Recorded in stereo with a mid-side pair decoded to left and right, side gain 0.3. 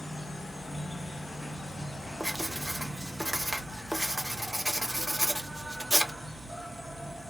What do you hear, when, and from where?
0.0 s an insect: 5° left, 0.8 m
2.2 s writing: 5° right, 0.8 m